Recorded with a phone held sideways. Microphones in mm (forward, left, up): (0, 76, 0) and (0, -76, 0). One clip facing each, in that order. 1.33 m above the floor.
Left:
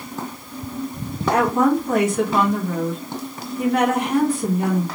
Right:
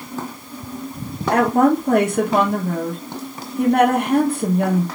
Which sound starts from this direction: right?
A woman speaking, at 1.3 s.